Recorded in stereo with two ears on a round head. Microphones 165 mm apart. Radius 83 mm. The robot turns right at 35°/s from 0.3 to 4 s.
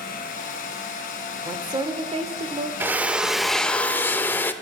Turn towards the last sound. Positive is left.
turn(degrees=20)